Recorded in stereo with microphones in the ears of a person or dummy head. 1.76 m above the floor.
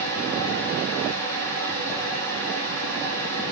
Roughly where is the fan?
Right.